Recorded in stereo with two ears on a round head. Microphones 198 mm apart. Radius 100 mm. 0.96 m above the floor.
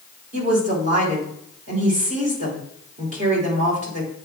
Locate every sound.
0.3 s a woman speaking: 35° right (ahead or behind), 2.5 m